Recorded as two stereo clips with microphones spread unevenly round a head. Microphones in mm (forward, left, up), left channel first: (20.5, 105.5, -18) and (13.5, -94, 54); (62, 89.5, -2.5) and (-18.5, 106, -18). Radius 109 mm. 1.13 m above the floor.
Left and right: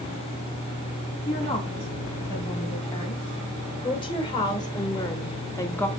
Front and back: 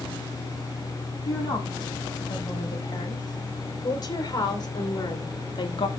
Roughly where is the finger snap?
I don't hear a finger snap.